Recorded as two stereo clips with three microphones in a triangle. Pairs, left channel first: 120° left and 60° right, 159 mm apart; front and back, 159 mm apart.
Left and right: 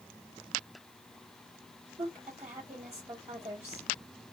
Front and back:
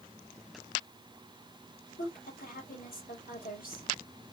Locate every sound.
2.0 s a woman speaking: 15° right, 2 m